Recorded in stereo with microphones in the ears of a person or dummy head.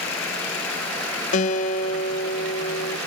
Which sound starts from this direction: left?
A guitar, at 1.3 s.